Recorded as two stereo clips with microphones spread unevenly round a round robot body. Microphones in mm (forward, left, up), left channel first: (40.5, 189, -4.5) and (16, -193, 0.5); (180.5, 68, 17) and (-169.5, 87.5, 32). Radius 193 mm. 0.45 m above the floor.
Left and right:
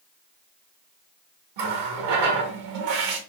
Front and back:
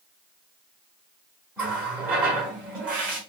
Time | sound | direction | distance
1.6 | a running tap | 95° right | 0.8 m